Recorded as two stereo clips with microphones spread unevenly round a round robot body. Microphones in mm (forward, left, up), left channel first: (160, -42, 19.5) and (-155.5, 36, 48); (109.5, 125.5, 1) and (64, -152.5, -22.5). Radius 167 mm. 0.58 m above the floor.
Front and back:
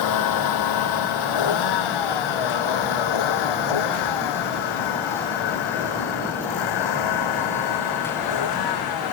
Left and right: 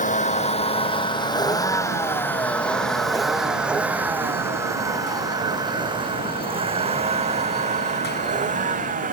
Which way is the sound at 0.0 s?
15° left.